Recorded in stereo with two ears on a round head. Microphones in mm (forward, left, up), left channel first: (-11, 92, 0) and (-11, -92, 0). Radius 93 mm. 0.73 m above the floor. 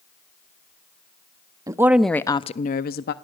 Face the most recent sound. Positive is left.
turn(degrees=50)  # may be behind; listen again after turning